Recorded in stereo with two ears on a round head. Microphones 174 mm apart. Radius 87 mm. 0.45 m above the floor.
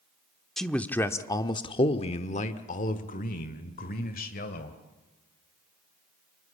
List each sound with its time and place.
0.6 s a man speaking: centre (ahead or behind), 1.0 m; by 4.8 s 50° left (ahead or behind), 2 m